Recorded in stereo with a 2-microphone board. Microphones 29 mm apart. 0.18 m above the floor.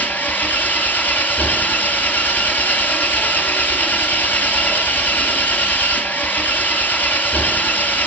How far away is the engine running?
About 1.5 m.